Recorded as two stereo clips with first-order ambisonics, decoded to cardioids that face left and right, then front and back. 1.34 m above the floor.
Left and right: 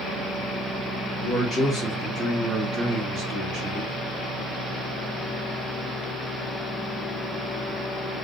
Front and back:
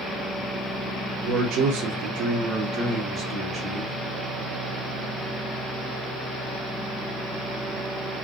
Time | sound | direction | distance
1.2 | a man speaking | 155° left | 0.7 m